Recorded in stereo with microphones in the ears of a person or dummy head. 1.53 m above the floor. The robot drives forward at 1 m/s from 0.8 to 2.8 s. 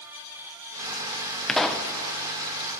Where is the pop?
5° left (ahead or behind), 0.8 m.